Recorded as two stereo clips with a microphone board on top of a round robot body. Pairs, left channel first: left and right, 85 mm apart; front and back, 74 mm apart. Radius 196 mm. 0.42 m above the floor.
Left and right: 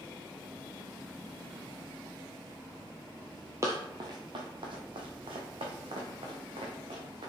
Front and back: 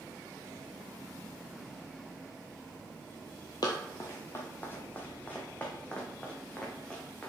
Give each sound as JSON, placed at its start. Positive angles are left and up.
{"t": 3.6, "sound": "running footsteps", "azimuth_deg": -30, "distance_m": 0.6}